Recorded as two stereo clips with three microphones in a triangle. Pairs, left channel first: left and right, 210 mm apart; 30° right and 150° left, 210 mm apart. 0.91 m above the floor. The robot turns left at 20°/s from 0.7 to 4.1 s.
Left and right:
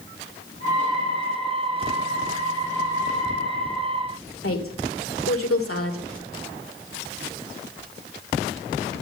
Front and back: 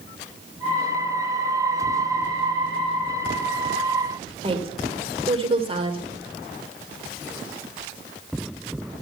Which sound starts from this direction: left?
A woman speaking, at 4.4 s.